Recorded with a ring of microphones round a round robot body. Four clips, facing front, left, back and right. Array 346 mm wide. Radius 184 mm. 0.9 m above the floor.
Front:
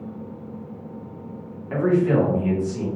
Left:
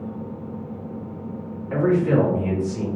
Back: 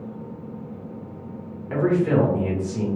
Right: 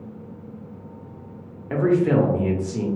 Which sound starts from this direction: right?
A man speaking, at 1.7 s.